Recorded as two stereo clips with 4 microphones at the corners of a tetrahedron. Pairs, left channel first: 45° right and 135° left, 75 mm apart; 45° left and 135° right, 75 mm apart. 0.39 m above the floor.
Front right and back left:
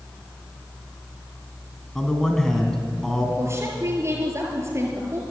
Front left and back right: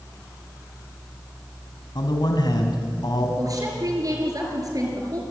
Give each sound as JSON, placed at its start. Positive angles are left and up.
{"t": 1.9, "sound": "a man speaking", "azimuth_deg": 35, "distance_m": 2.5}
{"t": 3.4, "sound": "a woman speaking", "azimuth_deg": -175, "distance_m": 6.5}